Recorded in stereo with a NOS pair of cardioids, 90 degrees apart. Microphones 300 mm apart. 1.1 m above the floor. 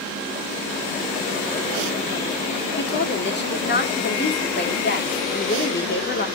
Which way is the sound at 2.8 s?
35° left.